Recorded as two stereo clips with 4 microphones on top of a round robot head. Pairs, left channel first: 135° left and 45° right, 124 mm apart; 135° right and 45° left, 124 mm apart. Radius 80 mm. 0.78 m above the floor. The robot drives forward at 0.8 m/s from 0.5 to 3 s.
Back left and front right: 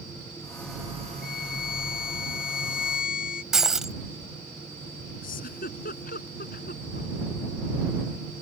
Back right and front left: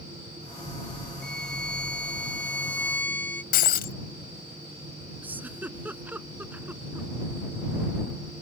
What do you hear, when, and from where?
1.2 s a violin: 140° left; by 3.4 s 145° left
3.5 s breaking glass: 130° right
5.2 s a giggle: 120° left